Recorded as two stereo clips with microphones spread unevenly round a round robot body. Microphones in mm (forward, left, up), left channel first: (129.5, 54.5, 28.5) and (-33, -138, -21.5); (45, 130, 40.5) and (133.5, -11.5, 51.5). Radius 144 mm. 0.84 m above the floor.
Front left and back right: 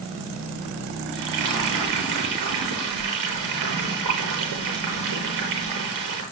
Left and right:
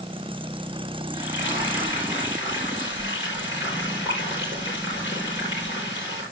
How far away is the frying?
About 8 m.